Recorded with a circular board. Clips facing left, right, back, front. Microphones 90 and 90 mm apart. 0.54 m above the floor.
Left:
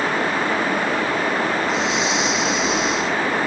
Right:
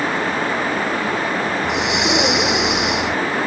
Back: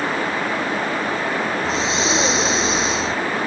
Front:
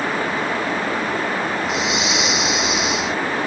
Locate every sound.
1.6 s breathing: 120° right